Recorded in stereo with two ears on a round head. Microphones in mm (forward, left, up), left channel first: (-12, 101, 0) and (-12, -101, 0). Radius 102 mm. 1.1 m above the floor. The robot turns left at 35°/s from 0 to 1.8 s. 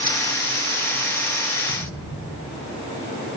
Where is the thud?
55° right (ahead or behind), 5 m.